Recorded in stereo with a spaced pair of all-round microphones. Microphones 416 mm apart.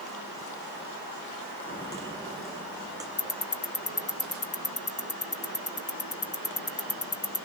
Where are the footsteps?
10° left (ahead or behind), 5 m; by 3.1 s 10° right (ahead or behind), 4 m.